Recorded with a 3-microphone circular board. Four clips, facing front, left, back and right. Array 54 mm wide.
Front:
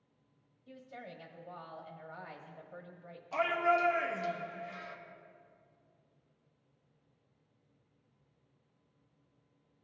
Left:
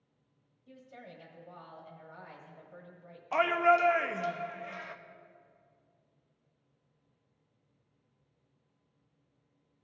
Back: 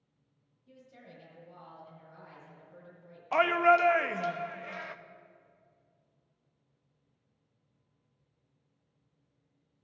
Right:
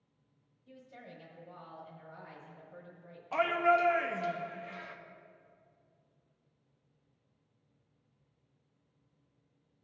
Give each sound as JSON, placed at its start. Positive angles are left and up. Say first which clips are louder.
{"t": 0.7, "sound": "a woman speaking", "louder": "left 1 dB, front 5 dB", "azimuth_deg": 20, "distance_m": 1.3}
{"t": 3.3, "sound": "a shout", "louder": "left 2 dB, back 6 dB", "azimuth_deg": 160, "distance_m": 0.6}